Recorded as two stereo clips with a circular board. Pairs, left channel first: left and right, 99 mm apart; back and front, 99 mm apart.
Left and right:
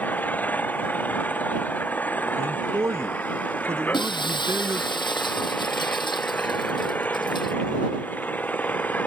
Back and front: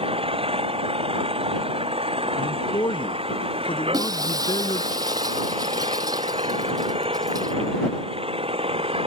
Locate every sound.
0.0 s an engine running: 15° left
2.4 s a man speaking: 150° right
3.9 s breaking glass: 50° left